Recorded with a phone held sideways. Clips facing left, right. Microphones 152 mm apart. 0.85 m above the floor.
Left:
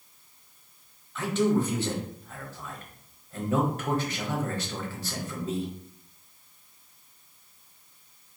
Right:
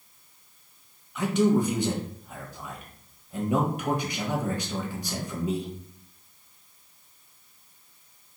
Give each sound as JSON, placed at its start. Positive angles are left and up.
{"t": 1.1, "sound": "a man speaking", "side_deg": -15, "distance_m": 0.9}